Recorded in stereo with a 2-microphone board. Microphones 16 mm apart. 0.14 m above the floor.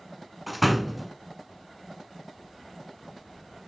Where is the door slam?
5° right (ahead or behind), 0.8 m.